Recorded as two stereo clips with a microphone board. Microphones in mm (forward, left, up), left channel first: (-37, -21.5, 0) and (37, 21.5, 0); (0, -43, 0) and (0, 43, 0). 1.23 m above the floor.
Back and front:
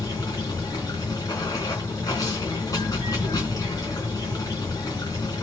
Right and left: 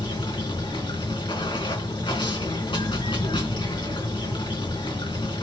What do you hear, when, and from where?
0.0 s running water: 105° right, 4 m